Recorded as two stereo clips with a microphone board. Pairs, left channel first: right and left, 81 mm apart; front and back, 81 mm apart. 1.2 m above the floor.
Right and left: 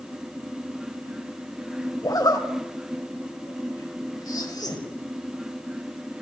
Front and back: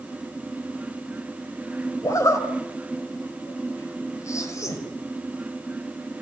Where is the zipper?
50° right, 4 m.